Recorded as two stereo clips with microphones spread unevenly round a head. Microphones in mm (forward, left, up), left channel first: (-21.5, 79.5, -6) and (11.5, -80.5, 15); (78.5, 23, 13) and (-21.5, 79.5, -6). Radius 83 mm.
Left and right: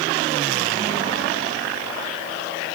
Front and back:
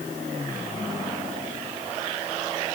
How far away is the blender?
No blender in this recording.